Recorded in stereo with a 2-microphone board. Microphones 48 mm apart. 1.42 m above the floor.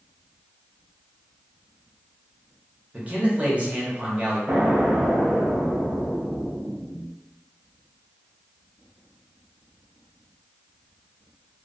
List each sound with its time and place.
2.9 s a man speaking: 25° right (ahead or behind), 0.9 m
4.5 s an explosion: 40° right (ahead or behind), 0.6 m